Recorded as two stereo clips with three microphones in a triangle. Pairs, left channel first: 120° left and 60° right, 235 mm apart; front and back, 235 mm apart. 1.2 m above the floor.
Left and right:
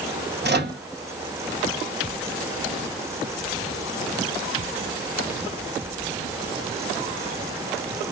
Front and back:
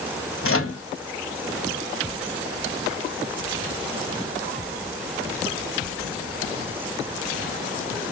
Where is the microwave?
20° right, 1.0 m.